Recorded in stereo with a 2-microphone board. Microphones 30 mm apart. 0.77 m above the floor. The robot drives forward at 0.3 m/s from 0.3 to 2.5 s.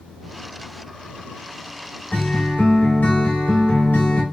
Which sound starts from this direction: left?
A guitar, at 2.1 s.